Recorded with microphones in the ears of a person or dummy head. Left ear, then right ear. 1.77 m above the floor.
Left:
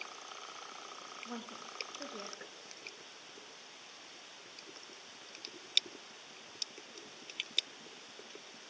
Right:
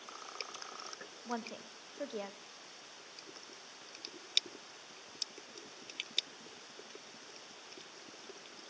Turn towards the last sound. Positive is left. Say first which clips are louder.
# right 7 dB
turn(degrees=-35)  # may be behind; listen again after turning